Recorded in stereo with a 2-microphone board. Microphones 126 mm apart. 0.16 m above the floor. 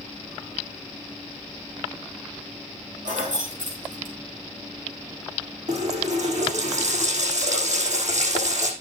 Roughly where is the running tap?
Right.